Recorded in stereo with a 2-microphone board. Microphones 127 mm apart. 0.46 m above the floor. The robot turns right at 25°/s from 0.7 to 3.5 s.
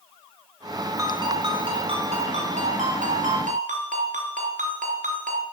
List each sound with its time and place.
1.0 s a ringtone: 155° right, 3.5 m; by 5.4 s 90° right, 3.5 m